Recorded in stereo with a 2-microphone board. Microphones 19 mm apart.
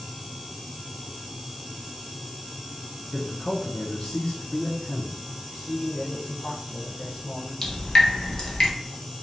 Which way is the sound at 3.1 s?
50° left (ahead or behind).